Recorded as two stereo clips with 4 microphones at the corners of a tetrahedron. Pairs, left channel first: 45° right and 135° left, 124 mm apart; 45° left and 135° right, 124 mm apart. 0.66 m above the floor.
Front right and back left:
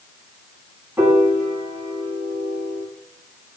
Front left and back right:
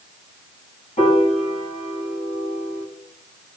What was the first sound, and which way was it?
A piano, 60° left.